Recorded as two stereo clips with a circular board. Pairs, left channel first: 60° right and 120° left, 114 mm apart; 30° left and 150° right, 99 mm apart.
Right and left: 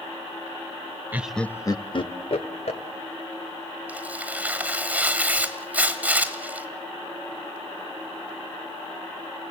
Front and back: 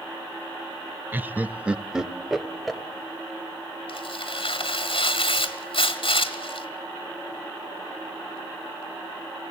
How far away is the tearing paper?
About 1.6 m.